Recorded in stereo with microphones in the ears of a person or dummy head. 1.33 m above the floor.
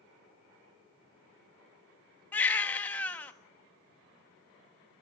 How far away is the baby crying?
About 1.5 m.